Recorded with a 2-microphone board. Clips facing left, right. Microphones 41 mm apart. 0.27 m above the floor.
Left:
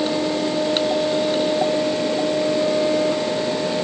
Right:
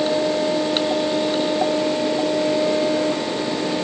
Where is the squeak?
I don't hear a squeak.